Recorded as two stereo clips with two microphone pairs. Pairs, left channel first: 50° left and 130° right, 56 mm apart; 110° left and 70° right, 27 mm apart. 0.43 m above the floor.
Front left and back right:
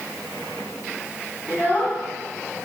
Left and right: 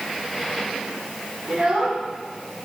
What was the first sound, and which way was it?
A child speaking, 5° right.